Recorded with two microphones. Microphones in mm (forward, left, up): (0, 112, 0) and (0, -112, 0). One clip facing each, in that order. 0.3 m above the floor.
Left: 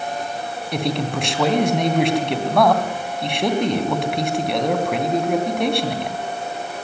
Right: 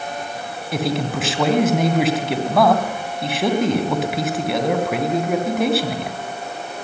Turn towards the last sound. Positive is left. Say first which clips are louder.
# right 1 dB
turn(degrees=0)  # may be behind; listen again after turning